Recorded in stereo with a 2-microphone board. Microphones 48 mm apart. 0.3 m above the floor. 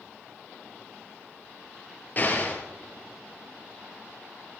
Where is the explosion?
35° left (ahead or behind), 3.5 m.